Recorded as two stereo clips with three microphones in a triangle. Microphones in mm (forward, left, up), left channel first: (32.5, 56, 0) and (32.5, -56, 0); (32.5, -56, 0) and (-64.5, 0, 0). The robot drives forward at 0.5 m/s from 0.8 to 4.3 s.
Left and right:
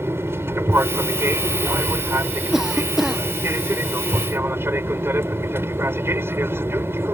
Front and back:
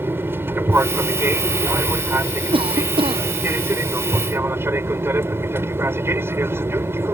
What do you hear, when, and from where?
0.0 s an aircraft: 150° right
2.5 s a cough: 175° right